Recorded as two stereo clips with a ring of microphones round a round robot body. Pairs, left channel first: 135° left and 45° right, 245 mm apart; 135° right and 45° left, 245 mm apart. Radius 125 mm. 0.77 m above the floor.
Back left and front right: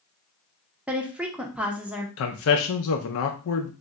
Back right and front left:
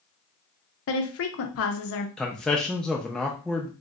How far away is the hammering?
I don't hear hammering.